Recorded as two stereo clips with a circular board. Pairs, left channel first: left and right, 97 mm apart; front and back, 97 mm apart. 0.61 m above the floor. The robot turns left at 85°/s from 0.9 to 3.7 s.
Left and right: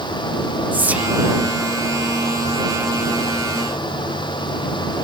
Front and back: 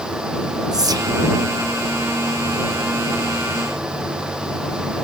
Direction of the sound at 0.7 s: 155° right.